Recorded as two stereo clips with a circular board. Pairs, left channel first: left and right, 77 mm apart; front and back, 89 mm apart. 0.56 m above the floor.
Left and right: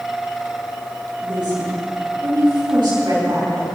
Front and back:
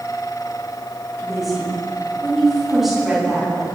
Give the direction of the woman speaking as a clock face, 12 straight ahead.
3 o'clock.